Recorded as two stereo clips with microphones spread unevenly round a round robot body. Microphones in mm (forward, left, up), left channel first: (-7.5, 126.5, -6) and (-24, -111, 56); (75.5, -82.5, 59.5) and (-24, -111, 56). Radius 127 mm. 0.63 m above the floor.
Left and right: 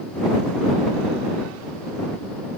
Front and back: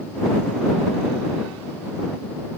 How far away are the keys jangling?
I don't hear keys jangling.